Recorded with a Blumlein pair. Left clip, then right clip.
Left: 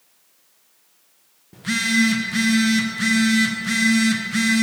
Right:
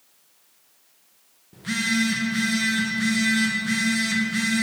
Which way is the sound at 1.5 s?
15° left.